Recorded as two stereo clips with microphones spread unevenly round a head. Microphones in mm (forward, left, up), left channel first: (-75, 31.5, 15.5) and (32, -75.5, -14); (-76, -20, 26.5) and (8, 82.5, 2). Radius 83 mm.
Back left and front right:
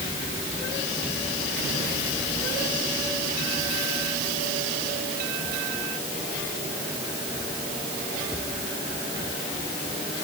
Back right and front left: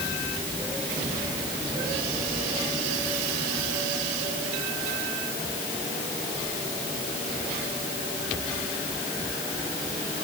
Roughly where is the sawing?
I don't hear sawing.